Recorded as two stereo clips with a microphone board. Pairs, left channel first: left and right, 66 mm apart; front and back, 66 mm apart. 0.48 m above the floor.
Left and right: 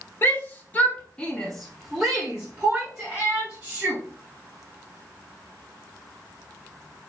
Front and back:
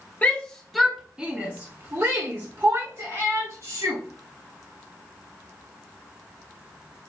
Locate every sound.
0.2 s a shout: 55° left, 0.9 m; by 4.0 s 160° right, 1.9 m